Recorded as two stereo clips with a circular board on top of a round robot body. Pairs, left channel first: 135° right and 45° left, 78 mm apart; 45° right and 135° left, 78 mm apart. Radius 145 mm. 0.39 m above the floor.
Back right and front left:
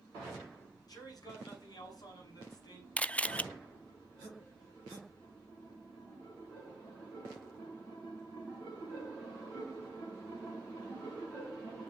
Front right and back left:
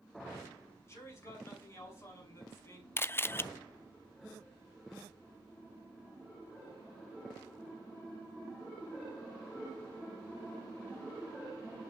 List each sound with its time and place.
0.9 s a man speaking: 100° right, 6 m
3.0 s a camera shutter: 75° right, 0.6 m